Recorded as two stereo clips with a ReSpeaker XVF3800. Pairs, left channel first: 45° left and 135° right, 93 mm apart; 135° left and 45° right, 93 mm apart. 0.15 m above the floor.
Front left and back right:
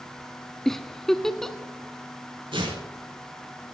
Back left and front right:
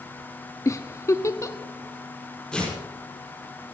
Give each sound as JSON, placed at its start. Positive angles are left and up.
{"t": 0.7, "sound": "a giggle", "azimuth_deg": 125, "distance_m": 0.5}
{"t": 2.5, "sound": "tearing paper", "azimuth_deg": -145, "distance_m": 4.5}